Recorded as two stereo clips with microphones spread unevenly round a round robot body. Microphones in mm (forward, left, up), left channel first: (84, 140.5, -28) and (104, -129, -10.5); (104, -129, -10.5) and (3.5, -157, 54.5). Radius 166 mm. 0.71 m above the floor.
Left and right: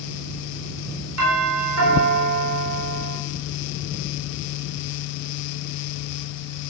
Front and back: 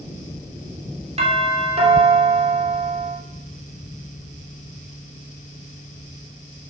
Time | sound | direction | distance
1.2 | a doorbell | 125° right | 3.5 m